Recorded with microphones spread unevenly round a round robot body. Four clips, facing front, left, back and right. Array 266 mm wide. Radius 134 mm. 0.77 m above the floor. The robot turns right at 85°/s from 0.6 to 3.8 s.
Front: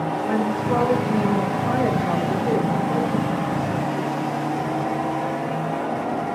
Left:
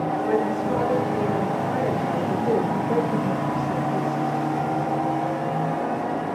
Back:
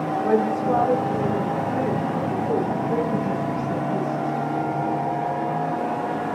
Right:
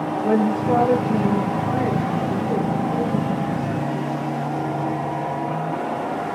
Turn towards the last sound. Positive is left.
turn(degrees=155)